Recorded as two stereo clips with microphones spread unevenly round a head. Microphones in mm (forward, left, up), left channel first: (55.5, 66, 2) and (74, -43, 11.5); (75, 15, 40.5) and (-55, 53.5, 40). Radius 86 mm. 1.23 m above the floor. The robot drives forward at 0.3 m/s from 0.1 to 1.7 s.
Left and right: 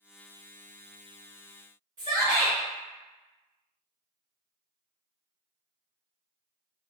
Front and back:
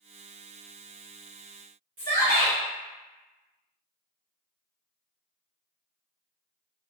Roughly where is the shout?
Behind right.